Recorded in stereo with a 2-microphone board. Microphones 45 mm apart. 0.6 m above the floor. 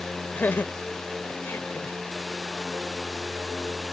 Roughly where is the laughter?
Left.